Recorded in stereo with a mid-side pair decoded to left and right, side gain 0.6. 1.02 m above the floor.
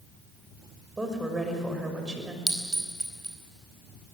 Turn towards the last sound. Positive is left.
turn(degrees=-10)